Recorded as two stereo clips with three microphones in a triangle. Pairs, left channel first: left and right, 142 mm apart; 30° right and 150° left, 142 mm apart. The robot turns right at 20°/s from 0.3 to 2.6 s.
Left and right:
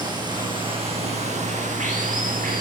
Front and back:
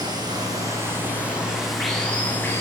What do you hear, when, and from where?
0.0 s running water: 150° right, 8 m; by 2.6 s 105° right, 8 m